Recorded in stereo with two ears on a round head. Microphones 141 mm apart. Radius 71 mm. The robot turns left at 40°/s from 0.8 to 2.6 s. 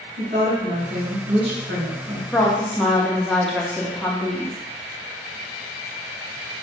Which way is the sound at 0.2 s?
55° right.